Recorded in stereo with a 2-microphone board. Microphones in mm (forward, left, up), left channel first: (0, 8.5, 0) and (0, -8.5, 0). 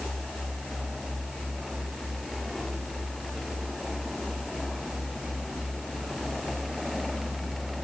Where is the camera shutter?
I don't hear a camera shutter.